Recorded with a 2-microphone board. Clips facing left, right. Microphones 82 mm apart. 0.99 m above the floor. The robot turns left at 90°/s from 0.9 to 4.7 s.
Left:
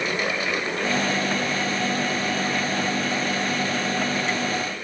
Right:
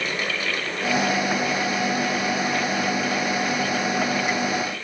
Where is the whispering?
I don't hear whispering.